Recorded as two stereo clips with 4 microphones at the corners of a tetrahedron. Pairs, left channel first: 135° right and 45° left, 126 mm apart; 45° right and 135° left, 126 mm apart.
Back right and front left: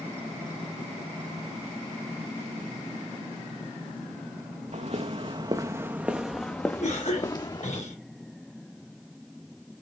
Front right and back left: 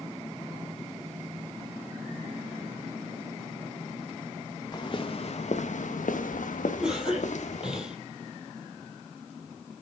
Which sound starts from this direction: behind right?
A cough, at 6.8 s.